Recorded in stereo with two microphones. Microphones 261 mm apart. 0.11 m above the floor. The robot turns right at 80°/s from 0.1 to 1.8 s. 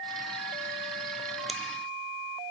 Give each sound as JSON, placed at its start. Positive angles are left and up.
{"t": 1.5, "sound": "scissors", "side_deg": 0, "distance_m": 1.4}